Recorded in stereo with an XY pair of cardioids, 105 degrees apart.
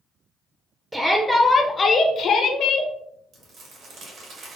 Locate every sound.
0.9 s a shout: 15° right, 0.6 m; by 2.9 s 75° left, 0.9 m
3.3 s crumpling: 60° right, 1.6 m